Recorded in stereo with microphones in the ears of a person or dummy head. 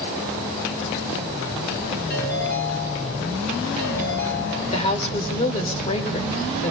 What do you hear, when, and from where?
2.1 s a ringtone: 60° left (ahead or behind), 6 m
4.7 s a woman speaking: 35° left (ahead or behind), 4.5 m